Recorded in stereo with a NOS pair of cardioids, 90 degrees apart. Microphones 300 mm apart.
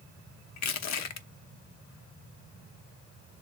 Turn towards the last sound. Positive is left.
turn(degrees=60)